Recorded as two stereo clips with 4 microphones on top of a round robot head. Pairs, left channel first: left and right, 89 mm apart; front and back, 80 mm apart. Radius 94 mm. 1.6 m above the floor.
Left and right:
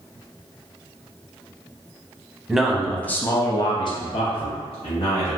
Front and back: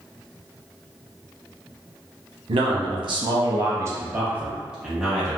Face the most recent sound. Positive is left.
turn(degrees=90)